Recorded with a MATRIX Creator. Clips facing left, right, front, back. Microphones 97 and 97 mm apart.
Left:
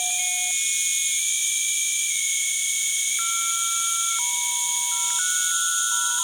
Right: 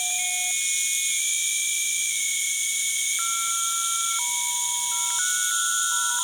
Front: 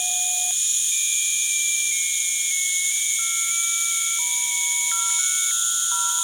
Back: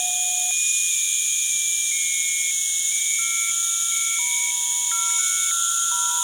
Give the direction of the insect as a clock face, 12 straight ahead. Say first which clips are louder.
Left 1 dB, back 1 dB; 9 o'clock.